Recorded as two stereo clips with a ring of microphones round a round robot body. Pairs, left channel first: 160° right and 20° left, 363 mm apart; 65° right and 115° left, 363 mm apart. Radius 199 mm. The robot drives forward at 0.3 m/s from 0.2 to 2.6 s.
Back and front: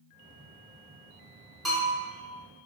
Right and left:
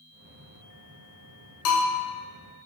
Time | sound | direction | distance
1.6 | a bell | 70° right | 0.6 m